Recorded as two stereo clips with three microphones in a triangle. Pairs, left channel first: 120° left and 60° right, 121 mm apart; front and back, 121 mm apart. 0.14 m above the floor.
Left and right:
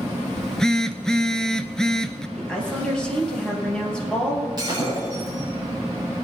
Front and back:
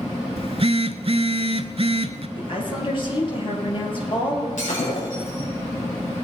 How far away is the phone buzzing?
About 0.6 m.